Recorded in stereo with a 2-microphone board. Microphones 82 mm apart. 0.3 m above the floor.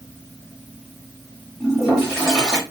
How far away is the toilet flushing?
About 1.5 m.